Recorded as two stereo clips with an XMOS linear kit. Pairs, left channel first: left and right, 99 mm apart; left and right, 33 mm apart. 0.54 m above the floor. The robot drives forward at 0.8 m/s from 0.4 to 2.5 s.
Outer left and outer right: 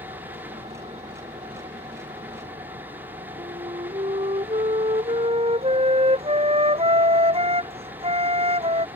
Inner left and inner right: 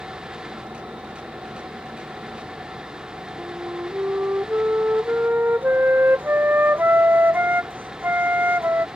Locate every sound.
0.0 s an engine running: 85° right; by 9.0 s 75° right (ahead or behind)
3.4 s a flute: 90° right